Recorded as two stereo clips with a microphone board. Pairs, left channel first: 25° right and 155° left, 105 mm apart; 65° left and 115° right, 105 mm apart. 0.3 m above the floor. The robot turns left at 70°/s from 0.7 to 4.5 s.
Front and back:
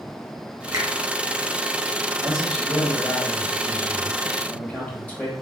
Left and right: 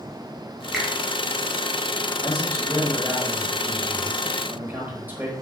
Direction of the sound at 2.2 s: 85° left.